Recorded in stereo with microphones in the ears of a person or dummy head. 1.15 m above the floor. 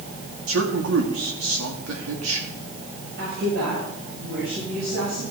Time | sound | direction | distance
0.5 | a man speaking | 70° right (ahead or behind) | 2.0 m
3.2 | a woman speaking | 70° right (ahead or behind) | 6 m